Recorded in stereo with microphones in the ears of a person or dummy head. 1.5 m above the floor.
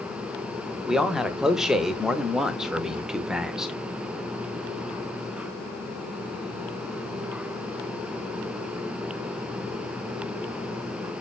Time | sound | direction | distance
0.9 | a man speaking | 5° right (ahead or behind) | 0.5 m